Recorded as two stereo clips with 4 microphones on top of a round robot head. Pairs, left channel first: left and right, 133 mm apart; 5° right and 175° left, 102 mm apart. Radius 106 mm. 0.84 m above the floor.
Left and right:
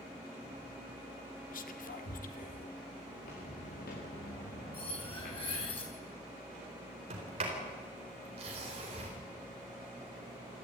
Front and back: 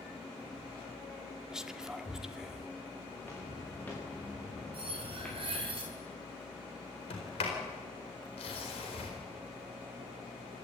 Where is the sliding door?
40° right, 4.5 m.